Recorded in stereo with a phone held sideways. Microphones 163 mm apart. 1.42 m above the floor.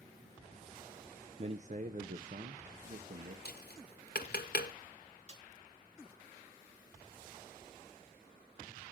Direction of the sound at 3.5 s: 80° left.